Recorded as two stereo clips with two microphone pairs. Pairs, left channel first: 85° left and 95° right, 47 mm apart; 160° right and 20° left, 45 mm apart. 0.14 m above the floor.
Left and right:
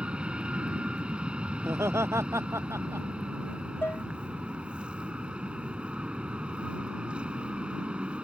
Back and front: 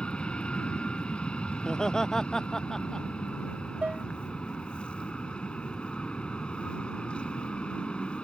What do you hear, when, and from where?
0.0 s an aircraft: 130° right
1.6 s laughter: 85° right
3.8 s dishes clattering: 65° left